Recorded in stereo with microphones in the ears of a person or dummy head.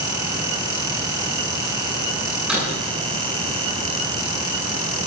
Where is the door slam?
5° right (ahead or behind), 9 m.